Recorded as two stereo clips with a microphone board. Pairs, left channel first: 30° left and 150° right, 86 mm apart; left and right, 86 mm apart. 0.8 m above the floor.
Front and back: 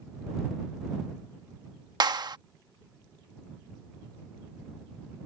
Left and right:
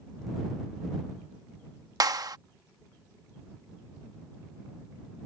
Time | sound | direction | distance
2.0 | a clap | 125° right | ?